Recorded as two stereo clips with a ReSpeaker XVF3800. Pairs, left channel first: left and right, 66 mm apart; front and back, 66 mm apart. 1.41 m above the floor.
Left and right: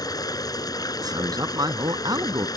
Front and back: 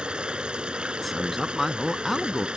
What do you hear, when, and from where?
0.0 s running water: 105° left
1.0 s a man speaking: 90° right